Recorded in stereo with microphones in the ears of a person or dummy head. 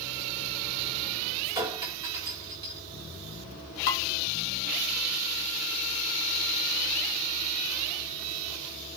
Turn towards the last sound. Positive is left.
turn(degrees=55)  # may be behind; listen again after turning